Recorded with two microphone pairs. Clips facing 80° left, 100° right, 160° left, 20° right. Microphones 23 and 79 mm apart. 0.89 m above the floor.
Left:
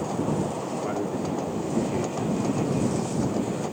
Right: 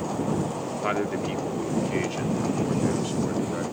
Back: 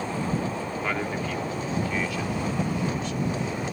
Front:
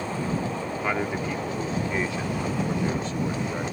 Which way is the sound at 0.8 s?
100° right.